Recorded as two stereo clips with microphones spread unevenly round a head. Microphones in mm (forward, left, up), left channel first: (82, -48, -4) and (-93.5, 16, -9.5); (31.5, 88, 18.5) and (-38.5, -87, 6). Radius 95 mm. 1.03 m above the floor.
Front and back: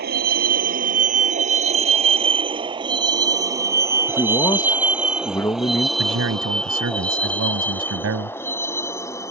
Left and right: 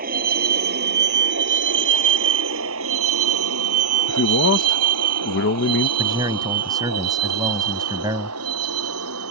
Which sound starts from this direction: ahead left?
A man speaking, at 4.1 s.